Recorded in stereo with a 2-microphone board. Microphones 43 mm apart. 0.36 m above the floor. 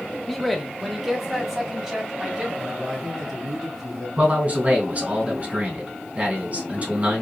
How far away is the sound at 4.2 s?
About 2.5 m.